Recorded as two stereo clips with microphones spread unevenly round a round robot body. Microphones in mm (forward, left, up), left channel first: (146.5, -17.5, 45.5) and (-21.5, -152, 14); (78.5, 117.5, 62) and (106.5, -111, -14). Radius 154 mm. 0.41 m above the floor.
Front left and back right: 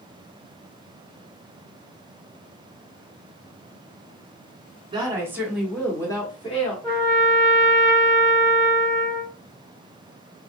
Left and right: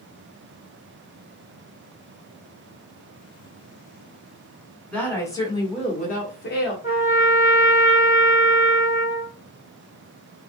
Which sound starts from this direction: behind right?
A woman speaking, at 4.9 s.